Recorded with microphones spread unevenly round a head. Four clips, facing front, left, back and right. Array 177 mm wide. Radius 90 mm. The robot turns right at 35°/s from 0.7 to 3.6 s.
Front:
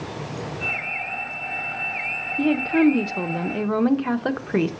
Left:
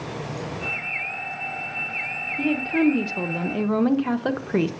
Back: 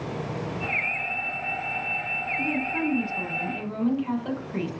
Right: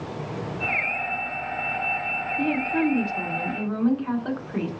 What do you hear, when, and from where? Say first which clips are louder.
2.4 s a woman speaking: left 3 dB, front 11 dB; straight ahead, 1.1 m; by 4.7 s 45° left, 1.1 m